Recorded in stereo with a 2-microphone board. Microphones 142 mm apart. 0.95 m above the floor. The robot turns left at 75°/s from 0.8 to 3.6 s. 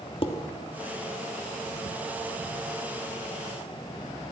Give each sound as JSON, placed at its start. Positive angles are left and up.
{"t": 0.2, "sound": "dishes clattering", "side_deg": 40, "distance_m": 1.3}